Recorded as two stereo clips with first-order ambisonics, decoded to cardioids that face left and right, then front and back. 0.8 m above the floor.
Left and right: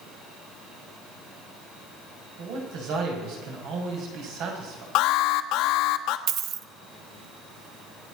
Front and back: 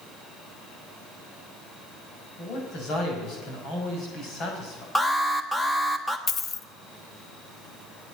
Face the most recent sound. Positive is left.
turn(degrees=-55)